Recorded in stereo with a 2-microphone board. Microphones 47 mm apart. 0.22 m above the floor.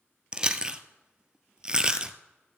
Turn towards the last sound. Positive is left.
turn(degrees=-20)  # may be behind; listen again after turning